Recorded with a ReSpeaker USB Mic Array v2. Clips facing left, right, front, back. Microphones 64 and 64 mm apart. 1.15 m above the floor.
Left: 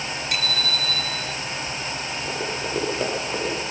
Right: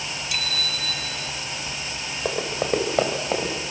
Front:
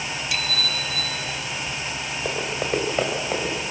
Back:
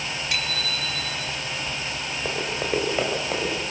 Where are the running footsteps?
100° right, 5.5 m; by 3.5 s 95° right, 7.5 m.